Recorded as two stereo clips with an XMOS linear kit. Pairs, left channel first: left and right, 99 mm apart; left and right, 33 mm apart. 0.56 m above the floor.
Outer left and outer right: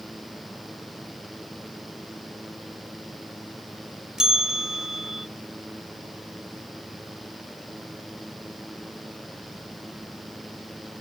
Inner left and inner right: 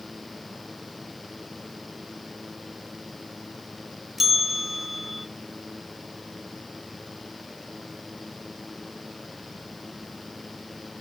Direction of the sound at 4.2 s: 5° right (ahead or behind).